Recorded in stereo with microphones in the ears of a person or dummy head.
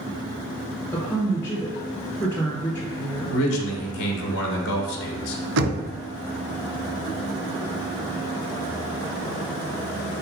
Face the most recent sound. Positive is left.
turn(degrees=-70)  # may be behind; listen again after turning